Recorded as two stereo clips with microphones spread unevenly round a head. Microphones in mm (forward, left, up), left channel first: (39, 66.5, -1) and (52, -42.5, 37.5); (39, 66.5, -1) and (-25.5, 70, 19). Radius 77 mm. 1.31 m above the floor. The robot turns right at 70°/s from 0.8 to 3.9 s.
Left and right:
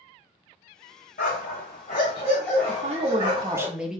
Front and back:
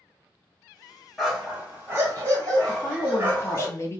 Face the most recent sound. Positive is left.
turn(degrees=15)